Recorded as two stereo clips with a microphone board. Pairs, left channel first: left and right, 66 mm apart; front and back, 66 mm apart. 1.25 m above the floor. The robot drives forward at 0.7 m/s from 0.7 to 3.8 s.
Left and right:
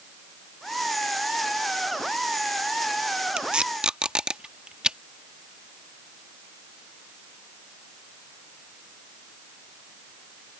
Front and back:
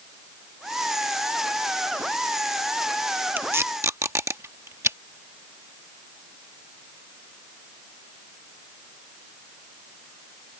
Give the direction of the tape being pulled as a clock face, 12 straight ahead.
5 o'clock.